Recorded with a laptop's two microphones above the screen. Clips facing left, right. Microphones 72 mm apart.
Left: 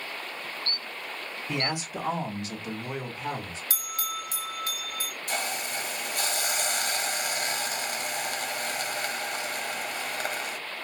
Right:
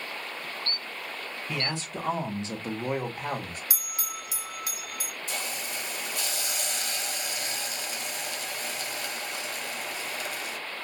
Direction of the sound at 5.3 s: 55° left (ahead or behind).